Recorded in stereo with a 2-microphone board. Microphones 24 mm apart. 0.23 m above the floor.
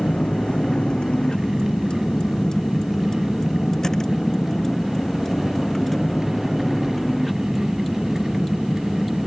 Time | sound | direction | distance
0.0 | a vehicle | 45° left (ahead or behind) | ?